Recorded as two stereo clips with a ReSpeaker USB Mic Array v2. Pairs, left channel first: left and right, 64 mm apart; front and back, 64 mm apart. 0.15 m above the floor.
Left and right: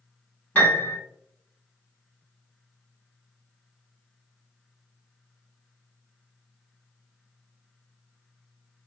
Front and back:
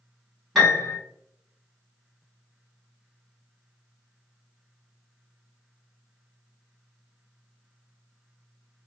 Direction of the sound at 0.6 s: 85° left.